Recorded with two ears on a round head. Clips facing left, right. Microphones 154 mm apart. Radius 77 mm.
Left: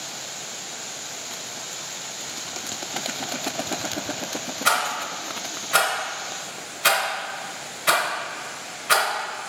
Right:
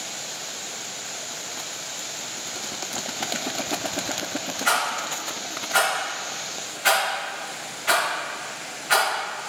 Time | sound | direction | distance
4.7 | a rattle | 75° left (ahead or behind) | 1.9 m